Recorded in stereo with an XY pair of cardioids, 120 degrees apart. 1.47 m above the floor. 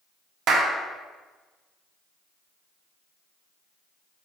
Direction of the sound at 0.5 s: 60° right.